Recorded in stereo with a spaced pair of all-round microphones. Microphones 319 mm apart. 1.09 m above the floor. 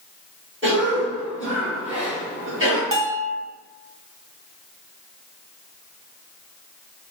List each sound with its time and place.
0.6 s a cough: 40° right (ahead or behind), 1.6 m
2.9 s a bell: 80° right, 0.6 m